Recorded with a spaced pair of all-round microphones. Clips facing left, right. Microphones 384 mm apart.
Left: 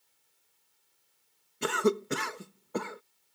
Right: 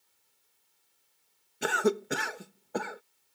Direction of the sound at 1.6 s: 10° left (ahead or behind).